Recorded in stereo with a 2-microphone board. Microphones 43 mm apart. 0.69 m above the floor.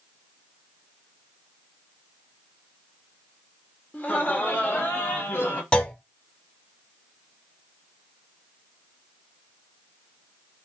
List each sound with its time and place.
3.9 s laughter: 35° left (ahead or behind), 1.1 m; by 5.6 s 55° left (ahead or behind), 1.8 m
5.7 s a clunk: 25° left (ahead or behind), 0.8 m